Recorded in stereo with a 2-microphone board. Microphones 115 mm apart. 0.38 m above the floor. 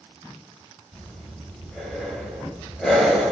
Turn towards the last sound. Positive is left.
turn(degrees=0)  # may be behind; listen again after turning